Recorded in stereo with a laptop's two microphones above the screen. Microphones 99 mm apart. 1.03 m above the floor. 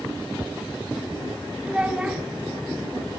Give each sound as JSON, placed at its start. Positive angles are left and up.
{"t": 1.6, "sound": "a child speaking", "side_deg": -10, "distance_m": 1.1}